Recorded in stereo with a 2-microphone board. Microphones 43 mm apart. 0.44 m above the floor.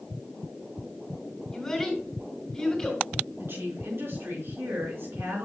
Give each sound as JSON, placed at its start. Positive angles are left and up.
{"t": 1.5, "sound": "a child speaking", "side_deg": 15, "distance_m": 3.0}
{"t": 3.4, "sound": "a woman speaking", "side_deg": -60, "distance_m": 5.0}